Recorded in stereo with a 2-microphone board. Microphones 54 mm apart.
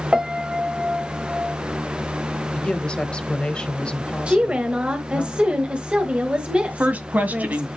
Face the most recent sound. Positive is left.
turn(degrees=-35)  # may be behind; listen again after turning